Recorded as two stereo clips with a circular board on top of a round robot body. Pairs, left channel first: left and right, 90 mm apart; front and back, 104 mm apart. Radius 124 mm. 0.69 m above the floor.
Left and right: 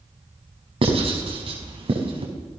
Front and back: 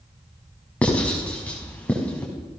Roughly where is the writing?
Right.